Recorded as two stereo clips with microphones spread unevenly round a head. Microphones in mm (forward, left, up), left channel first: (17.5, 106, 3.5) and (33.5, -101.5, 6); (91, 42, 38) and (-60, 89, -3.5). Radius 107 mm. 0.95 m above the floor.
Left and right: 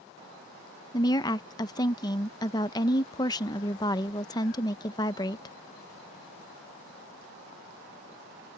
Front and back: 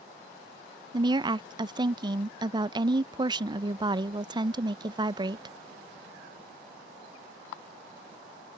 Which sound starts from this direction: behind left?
A woman speaking, at 0.9 s.